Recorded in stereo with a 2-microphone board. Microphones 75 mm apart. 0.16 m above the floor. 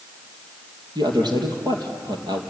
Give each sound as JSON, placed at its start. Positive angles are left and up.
{"t": 0.9, "sound": "a man speaking", "side_deg": -75, "distance_m": 3.5}